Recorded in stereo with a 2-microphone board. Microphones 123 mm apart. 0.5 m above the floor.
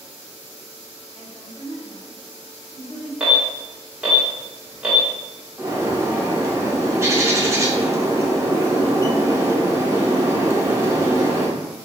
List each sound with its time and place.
1.1 s a woman speaking: 40° left (ahead or behind), 1.7 m
3.2 s an alarm: 10° right (ahead or behind), 1.3 m
5.6 s a bird: 25° right (ahead or behind), 0.7 m